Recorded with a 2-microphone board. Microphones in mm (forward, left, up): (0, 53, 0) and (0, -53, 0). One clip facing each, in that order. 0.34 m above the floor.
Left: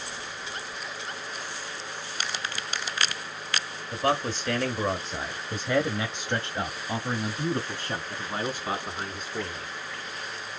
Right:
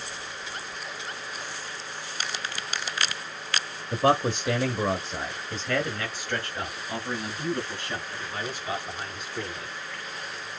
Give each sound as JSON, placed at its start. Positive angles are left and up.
{"t": 3.9, "sound": "a man speaking", "side_deg": -30, "distance_m": 1.1}